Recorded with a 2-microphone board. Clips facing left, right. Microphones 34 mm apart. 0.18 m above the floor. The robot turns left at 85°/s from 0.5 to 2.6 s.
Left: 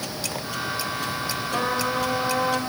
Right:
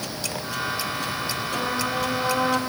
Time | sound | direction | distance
1.5 | a trumpet | 25° left | 4.5 m